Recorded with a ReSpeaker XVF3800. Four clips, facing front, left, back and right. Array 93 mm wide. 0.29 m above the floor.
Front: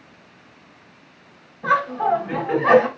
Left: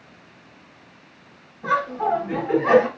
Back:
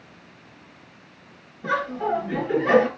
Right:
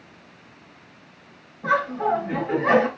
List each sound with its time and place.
1.6 s laughter: 5° left, 1.8 m